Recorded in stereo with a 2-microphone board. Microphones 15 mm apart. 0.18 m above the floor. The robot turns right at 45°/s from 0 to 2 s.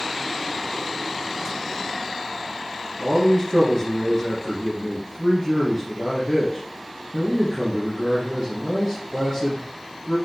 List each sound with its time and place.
3.0 s a man speaking: 35° left (ahead or behind), 2.5 m